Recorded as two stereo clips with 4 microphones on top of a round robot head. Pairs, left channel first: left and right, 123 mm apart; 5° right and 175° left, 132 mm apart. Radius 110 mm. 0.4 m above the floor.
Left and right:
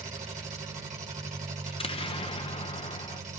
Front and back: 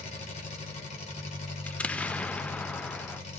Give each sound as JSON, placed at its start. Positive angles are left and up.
{"t": 0.0, "sound": "an engine running", "azimuth_deg": -50, "distance_m": 2.5}
{"t": 1.7, "sound": "an explosion", "azimuth_deg": 75, "distance_m": 0.8}